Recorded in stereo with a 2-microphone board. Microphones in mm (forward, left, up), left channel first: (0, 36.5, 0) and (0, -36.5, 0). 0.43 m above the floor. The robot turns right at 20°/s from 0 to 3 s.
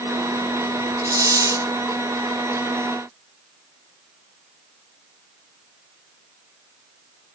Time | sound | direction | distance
1.0 | a hiss | 55° right (ahead or behind) | 1.4 m